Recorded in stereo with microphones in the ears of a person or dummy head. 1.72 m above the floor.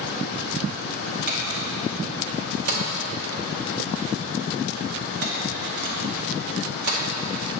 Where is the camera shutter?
55° right (ahead or behind), 1.0 m.